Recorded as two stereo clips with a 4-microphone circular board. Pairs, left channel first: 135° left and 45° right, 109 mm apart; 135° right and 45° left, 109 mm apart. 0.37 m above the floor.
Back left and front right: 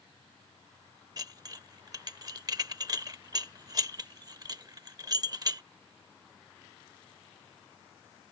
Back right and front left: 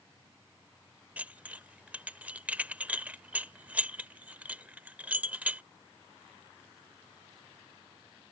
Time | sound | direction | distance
1.2 | dishes clattering | 20° right | ?